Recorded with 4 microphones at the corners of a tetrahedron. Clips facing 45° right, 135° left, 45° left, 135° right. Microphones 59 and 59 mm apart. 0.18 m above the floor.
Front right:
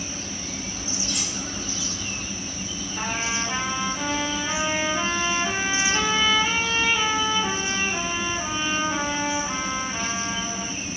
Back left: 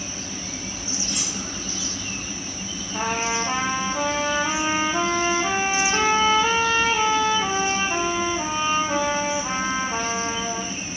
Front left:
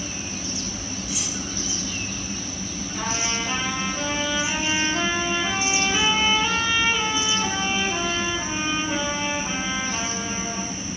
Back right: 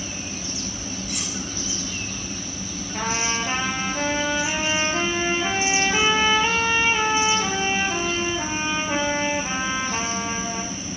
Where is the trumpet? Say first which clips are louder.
Back left 4 dB, back right 3 dB; 175° left, 2 m.